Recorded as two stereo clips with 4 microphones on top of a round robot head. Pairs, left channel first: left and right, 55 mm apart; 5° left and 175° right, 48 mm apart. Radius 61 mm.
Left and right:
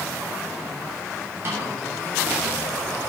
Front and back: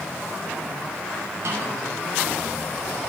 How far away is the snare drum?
About 7 m.